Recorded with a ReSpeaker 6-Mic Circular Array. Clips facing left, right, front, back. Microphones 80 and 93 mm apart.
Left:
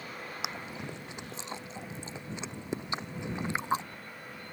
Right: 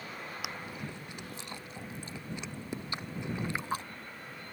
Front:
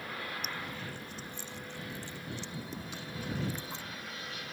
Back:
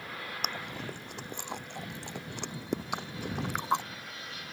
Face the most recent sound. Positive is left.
turn(degrees=160)